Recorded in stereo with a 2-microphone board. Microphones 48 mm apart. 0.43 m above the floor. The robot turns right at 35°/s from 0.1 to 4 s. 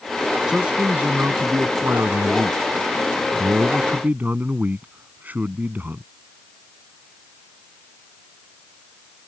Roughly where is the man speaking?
Behind.